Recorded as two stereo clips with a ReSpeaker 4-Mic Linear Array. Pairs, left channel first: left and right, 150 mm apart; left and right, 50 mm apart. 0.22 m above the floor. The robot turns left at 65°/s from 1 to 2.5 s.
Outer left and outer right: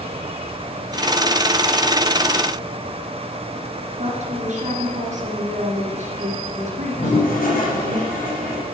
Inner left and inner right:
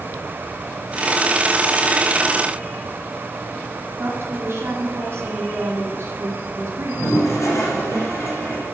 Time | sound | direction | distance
4.0 | a woman speaking | 50° right (ahead or behind) | 2.5 m
7.0 | a toilet flushing | 70° left (ahead or behind) | 4.5 m